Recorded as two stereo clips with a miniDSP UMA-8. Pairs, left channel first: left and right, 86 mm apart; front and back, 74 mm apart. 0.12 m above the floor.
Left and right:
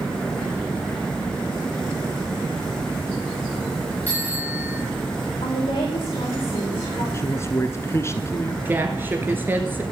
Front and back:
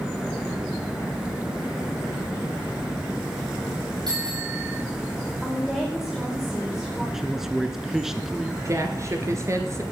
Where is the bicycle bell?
160° left, 10 m.